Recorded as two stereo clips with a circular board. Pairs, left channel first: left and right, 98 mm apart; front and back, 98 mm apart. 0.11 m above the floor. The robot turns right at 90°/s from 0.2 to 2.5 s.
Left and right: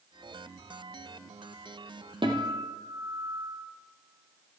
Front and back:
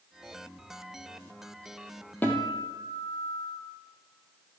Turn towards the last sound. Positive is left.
turn(degrees=-45)